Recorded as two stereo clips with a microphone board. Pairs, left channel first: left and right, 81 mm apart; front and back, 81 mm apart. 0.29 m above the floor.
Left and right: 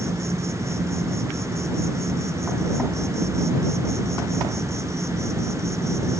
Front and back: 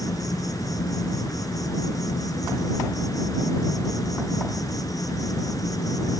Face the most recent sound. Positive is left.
turn(degrees=-40)